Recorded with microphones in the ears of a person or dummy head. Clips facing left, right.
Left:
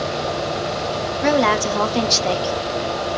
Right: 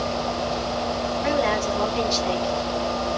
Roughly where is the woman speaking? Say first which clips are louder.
Left 6 dB; left.